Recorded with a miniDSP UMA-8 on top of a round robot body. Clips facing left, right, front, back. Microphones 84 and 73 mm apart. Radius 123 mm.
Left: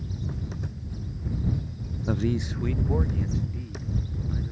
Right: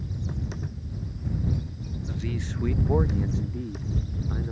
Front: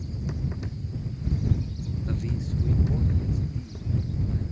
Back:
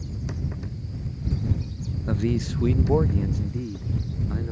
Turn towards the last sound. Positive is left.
turn(degrees=-140)